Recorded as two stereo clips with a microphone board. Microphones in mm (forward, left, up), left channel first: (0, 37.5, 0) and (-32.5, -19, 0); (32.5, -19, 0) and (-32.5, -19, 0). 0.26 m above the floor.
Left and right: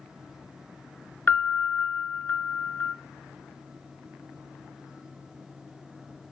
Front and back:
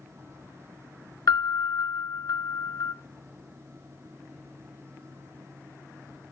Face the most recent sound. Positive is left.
turn(degrees=0)